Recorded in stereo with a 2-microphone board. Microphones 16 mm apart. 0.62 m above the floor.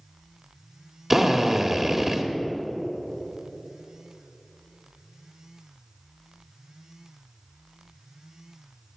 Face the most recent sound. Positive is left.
turn(degrees=-15)  # may be behind; listen again after turning